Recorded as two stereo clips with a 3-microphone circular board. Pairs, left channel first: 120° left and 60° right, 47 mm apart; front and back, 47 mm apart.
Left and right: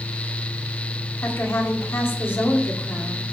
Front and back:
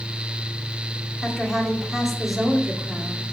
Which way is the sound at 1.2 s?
90° left.